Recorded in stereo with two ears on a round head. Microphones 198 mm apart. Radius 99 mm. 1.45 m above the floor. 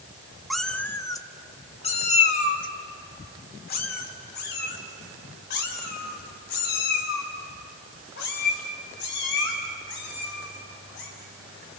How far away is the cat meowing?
About 0.9 m.